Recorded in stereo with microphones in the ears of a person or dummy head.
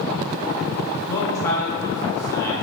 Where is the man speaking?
15° left (ahead or behind), 0.8 m.